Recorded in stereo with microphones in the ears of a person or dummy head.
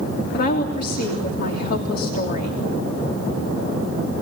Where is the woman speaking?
45° left (ahead or behind), 3 m.